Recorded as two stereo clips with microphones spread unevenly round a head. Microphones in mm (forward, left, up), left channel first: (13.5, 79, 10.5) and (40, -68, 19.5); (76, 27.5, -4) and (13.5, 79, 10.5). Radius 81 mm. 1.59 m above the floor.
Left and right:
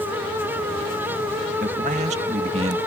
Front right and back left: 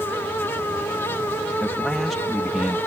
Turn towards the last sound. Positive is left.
turn(degrees=-135)